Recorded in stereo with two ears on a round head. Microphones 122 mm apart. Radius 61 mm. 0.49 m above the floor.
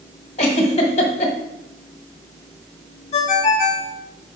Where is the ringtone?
50° left (ahead or behind), 0.7 m.